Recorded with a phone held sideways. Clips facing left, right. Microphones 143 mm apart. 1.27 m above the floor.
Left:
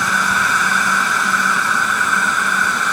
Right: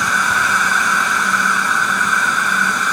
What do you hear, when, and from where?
0.0 s an insect: 5° left (ahead or behind)